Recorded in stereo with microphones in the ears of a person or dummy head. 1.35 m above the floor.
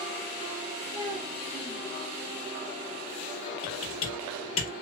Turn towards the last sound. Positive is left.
turn(degrees=35)  # may be behind; listen again after turning